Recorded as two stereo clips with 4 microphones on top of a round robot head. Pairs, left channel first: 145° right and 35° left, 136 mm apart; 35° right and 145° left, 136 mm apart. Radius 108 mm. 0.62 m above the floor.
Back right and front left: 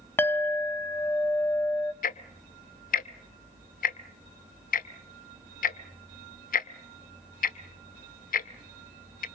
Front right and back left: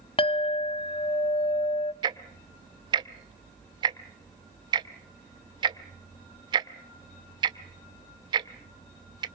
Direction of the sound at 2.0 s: 160° right.